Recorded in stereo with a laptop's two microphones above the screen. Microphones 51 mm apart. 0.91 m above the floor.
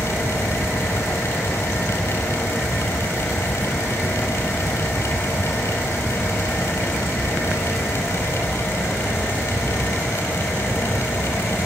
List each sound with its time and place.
0.0 s a fan: 60° left (ahead or behind), 6 m